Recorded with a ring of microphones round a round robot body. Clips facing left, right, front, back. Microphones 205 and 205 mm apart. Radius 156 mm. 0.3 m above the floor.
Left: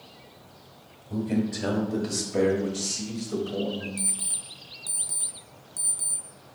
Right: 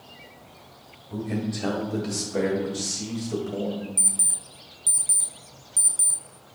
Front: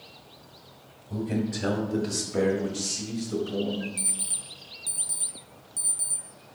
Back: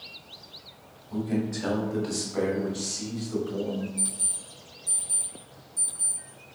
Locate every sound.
1.1 s a man speaking: 35° left, 1.6 m; by 3.9 s 25° right, 2.0 m
4.0 s an alarm clock: 30° right, 1.5 m